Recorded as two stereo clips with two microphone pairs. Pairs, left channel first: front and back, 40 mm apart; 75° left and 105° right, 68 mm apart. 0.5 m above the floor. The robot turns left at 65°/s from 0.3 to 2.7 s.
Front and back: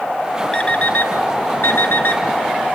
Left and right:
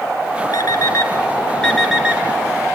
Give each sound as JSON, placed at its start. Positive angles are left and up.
{"t": 0.5, "sound": "an alarm clock", "azimuth_deg": 70, "distance_m": 2.0}